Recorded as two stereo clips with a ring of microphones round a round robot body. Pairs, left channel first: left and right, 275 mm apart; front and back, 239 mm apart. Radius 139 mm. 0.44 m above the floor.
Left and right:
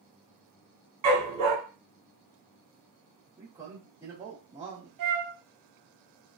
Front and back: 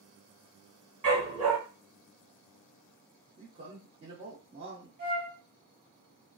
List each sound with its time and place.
1.0 s a dog barking: 105° right, 1.5 m
3.4 s a man speaking: 160° right, 1.0 m
5.0 s a flute: 120° right, 0.7 m